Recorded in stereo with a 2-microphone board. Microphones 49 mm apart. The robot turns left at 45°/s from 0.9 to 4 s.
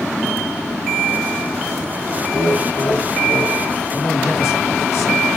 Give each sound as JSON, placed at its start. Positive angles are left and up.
{"t": 2.3, "sound": "laughter", "azimuth_deg": 130, "distance_m": 1.7}
{"t": 3.9, "sound": "a man speaking", "side_deg": 55, "distance_m": 4.5}